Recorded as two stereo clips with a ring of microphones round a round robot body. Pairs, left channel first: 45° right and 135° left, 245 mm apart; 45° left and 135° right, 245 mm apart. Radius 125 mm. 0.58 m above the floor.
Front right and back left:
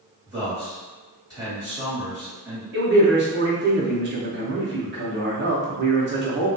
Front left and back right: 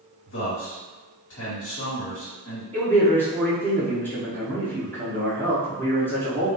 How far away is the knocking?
I don't hear knocking.